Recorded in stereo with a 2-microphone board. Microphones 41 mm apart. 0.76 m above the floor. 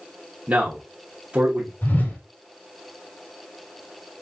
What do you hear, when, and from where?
0.5 s a man speaking: 40° right (ahead or behind), 1.1 m
1.8 s a whoosh: 50° left (ahead or behind), 2.5 m